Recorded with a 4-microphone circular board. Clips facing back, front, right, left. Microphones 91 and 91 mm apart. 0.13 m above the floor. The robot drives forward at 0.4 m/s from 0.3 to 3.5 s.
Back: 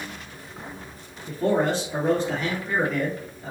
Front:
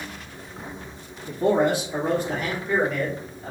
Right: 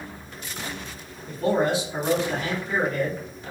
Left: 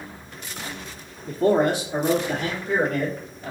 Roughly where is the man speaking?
Left.